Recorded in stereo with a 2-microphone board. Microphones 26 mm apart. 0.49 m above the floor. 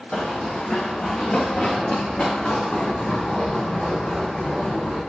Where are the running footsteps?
55° left (ahead or behind), 1.0 m; by 5.0 s 25° left (ahead or behind), 5 m.